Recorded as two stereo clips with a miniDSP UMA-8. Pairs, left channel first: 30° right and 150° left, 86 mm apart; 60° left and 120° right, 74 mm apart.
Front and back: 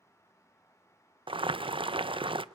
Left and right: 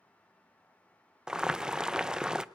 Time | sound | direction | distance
1.3 | boiling | 160° left | 0.6 m